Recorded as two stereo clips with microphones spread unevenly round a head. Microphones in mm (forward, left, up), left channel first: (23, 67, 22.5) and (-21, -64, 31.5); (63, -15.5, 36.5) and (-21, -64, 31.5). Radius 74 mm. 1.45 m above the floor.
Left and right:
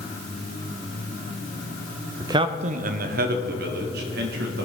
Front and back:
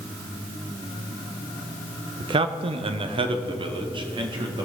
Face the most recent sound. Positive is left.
turn(degrees=-110)